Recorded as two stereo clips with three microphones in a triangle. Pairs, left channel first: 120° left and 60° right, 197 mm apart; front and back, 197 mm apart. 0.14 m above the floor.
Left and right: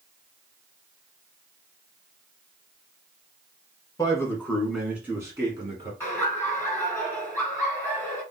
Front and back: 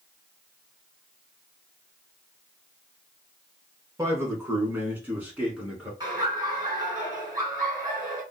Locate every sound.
4.0 s a man speaking: 135° left, 1.6 m; by 5.9 s 95° right, 1.9 m
6.0 s laughter: 175° left, 1.5 m